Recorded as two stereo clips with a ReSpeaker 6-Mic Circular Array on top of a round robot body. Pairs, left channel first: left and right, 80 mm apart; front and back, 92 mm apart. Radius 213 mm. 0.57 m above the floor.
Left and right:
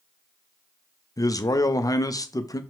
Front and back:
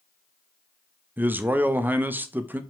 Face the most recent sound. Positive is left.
turn(degrees=115)